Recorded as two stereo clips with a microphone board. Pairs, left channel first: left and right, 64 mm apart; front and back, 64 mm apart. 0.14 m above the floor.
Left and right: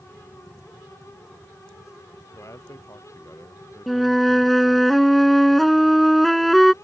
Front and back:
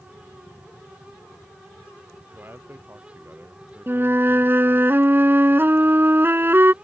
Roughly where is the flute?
Behind.